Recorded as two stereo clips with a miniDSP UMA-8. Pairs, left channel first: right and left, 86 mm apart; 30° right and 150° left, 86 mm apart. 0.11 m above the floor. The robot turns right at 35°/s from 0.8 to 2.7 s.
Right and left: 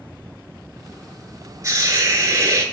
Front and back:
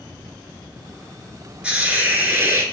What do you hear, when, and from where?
1.6 s a hiss: 80° left, 0.6 m; by 2.6 s 115° left, 0.6 m